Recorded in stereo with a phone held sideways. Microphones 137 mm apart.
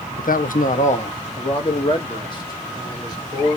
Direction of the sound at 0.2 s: 80° left.